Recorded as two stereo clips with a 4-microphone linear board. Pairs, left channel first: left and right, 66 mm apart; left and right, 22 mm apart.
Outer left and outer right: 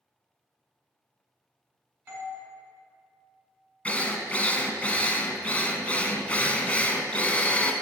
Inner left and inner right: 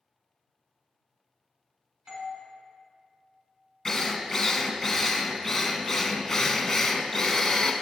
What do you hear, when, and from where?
2.1 s a doorbell: 30° right (ahead or behind), 1.8 m
3.9 s a drill: 20° left (ahead or behind), 0.8 m